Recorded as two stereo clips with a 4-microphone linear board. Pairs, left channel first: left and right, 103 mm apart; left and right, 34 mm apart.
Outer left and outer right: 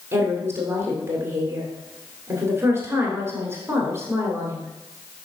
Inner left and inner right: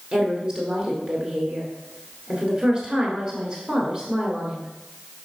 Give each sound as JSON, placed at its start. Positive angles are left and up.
{"t": 0.1, "sound": "a woman speaking", "side_deg": -25, "distance_m": 1.4}